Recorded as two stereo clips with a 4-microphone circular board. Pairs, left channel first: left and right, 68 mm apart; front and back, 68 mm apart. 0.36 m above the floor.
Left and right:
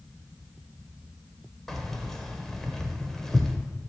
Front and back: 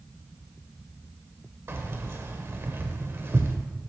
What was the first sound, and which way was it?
Keys jangling, 170° left.